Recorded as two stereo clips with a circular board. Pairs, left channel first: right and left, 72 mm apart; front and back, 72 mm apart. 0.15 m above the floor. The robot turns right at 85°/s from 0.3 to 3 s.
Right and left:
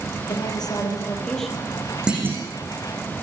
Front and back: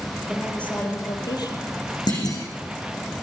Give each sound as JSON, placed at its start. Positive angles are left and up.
{"t": 0.3, "sound": "a woman speaking", "azimuth_deg": -100, "distance_m": 5.0}
{"t": 2.1, "sound": "a clunk", "azimuth_deg": 10, "distance_m": 6.5}